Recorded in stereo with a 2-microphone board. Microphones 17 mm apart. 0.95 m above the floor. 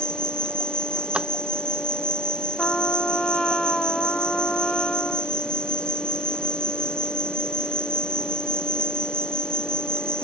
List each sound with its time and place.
0.0 s an insect: 55° left (ahead or behind)
1.1 s a drawer: 60° right (ahead or behind)
2.6 s a trumpet: 50° left (ahead or behind)